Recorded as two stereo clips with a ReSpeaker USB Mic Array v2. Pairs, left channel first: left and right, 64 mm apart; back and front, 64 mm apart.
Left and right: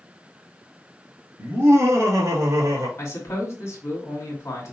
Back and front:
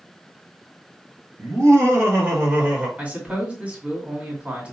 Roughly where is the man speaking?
Ahead left.